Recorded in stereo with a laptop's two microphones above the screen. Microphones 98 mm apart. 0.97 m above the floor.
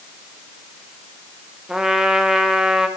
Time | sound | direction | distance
1.7 | a trumpet | 5° right (ahead or behind) | 0.5 m